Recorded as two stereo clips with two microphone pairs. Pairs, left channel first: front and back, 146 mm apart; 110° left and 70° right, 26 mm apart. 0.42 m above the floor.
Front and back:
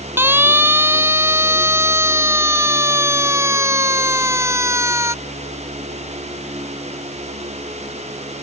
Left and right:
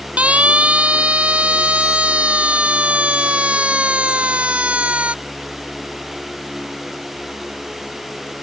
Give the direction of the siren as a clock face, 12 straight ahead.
3 o'clock.